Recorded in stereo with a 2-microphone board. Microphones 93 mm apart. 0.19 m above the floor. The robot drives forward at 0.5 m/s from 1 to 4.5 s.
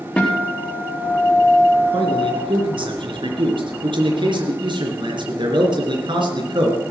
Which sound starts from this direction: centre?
A guitar, at 0.2 s.